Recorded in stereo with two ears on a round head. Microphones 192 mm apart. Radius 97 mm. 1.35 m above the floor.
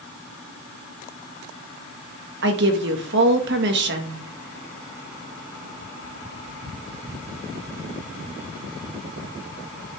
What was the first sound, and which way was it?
A woman speaking, 55° right (ahead or behind).